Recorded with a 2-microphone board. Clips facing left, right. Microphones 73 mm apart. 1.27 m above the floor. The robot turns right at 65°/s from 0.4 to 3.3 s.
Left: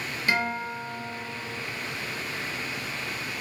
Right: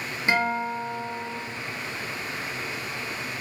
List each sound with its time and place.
0.3 s a guitar: 20° right (ahead or behind), 0.6 m; by 1.4 s 25° right (ahead or behind), 0.6 m